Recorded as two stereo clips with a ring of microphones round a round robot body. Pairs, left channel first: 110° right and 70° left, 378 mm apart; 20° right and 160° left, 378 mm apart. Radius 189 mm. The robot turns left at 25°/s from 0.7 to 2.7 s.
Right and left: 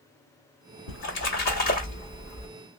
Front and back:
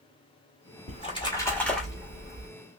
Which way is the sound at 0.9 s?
90° right.